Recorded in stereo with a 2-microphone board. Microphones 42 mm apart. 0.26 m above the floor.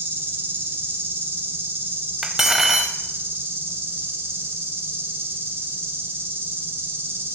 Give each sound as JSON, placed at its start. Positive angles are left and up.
{"t": 0.0, "sound": "an insect", "side_deg": -60, "distance_m": 2.5}
{"t": 2.2, "sound": "cutlery clinking", "side_deg": -10, "distance_m": 0.6}